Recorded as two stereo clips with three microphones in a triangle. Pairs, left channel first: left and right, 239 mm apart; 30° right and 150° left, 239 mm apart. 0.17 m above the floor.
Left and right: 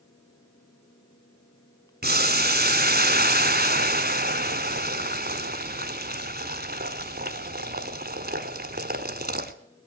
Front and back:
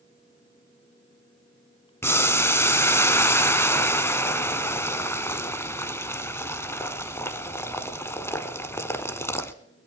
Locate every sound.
2.0 s boiling: 105° right, 1.2 m